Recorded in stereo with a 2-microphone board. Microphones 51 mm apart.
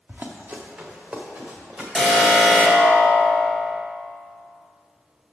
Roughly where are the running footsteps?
Right.